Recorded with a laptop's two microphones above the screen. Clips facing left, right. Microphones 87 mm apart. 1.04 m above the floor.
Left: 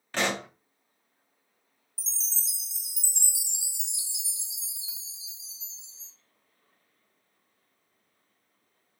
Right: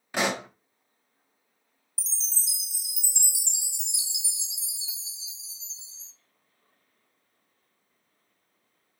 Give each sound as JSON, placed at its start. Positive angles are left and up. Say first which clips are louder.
{"t": 0.1, "sound": "a pop", "louder": "right 2 dB", "side_deg": -10, "distance_m": 0.7}
{"t": 2.0, "sound": "a chime", "louder": "right 2 dB", "side_deg": -70, "distance_m": 0.6}